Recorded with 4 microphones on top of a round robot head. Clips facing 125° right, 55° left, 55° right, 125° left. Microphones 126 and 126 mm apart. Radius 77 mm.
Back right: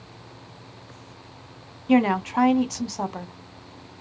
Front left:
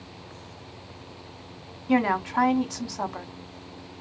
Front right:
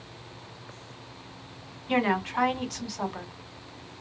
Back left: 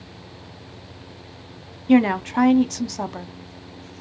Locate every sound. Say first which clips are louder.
1.9 s a woman speaking: back right 3 dB, back left 9 dB; 165° left, 0.5 m